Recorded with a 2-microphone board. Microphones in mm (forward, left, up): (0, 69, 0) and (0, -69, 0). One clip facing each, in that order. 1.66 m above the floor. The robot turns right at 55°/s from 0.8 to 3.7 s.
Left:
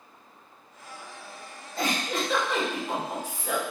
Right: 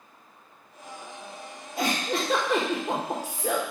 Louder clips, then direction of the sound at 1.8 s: Right 1 dB; 170° right.